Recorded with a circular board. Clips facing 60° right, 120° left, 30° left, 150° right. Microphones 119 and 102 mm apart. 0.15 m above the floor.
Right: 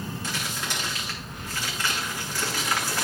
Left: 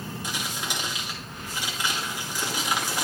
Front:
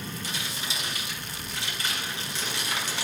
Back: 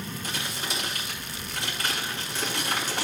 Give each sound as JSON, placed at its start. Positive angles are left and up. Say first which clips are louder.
{"t": 0.2, "sound": "crumpling", "louder": "even, back 2 dB", "azimuth_deg": -170, "distance_m": 2.5}